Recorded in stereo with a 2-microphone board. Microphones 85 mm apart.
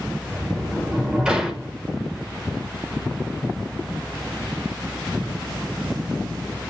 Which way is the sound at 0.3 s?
10° right (ahead or behind).